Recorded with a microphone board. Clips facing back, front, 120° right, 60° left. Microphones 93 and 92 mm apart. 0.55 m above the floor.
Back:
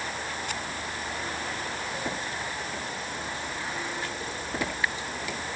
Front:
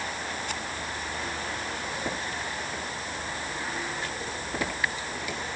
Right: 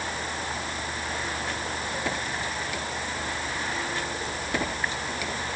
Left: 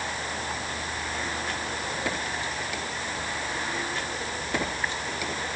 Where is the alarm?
I don't hear an alarm.